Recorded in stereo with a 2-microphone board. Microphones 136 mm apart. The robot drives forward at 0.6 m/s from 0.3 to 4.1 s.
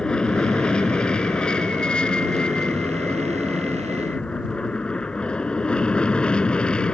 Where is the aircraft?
5° left (ahead or behind).